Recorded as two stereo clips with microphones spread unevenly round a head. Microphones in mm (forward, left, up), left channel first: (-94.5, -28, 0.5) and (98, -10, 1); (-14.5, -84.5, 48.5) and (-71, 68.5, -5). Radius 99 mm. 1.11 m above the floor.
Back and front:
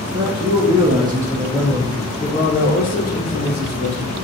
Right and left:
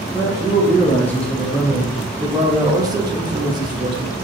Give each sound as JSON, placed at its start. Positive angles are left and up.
{"t": 0.1, "sound": "a man speaking", "azimuth_deg": 5, "distance_m": 1.0}